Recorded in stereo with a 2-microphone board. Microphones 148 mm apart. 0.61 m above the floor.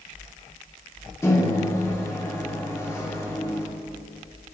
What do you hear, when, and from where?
1.2 s a microwave: 20° left (ahead or behind), 1.4 m